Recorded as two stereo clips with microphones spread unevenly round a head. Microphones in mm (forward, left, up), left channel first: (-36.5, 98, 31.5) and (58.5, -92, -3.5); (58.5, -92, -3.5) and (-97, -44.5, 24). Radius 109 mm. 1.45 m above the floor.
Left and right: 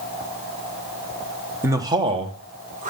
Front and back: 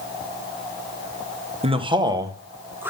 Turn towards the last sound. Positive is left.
turn(degrees=-120)